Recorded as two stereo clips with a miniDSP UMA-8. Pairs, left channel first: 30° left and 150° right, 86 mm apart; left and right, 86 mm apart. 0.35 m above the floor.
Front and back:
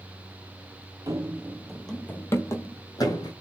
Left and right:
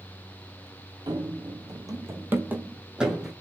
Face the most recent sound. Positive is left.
turn(degrees=-5)